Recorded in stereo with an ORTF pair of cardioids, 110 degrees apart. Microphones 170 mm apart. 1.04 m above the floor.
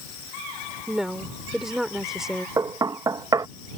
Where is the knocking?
25° right.